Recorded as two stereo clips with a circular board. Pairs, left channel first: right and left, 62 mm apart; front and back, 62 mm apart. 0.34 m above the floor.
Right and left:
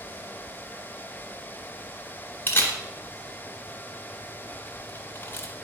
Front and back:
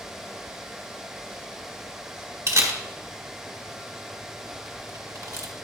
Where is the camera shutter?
140° right, 1.6 m.